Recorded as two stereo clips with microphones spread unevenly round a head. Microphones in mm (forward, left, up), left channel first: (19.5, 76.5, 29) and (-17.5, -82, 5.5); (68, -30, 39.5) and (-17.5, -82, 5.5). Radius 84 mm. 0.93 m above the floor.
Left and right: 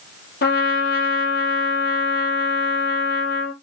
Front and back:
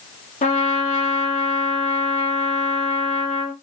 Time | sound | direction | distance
0.4 | a trumpet | 45° left | 5 m